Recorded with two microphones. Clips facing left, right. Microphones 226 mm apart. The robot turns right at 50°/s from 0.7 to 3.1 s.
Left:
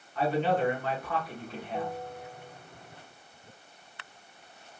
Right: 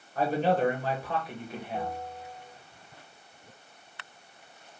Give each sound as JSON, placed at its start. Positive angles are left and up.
{"t": 0.1, "sound": "a man speaking", "azimuth_deg": -60, "distance_m": 1.1}
{"t": 1.7, "sound": "a bell", "side_deg": 5, "distance_m": 0.9}